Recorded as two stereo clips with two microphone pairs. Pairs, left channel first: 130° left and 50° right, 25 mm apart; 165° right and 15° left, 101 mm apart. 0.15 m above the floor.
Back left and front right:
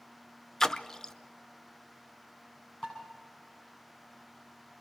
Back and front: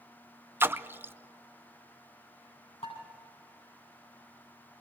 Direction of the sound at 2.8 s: 175° right.